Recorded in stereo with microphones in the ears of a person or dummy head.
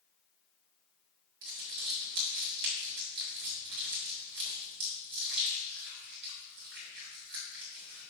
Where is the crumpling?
60° right (ahead or behind), 2 m.